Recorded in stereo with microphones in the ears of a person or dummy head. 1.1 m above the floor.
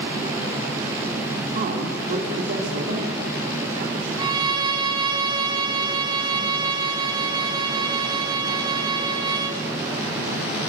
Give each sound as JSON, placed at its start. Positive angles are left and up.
{"t": 1.5, "sound": "a man speaking", "side_deg": -45, "distance_m": 3.5}
{"t": 4.2, "sound": "a violin", "side_deg": -30, "distance_m": 1.5}